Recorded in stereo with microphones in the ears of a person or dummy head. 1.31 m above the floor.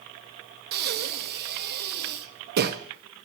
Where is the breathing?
50° right (ahead or behind), 1.0 m.